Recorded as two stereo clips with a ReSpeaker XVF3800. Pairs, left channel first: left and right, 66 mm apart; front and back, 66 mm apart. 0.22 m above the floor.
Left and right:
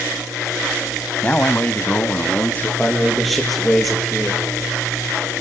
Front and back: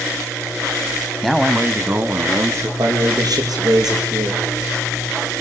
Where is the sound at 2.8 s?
Straight behind, 5 m.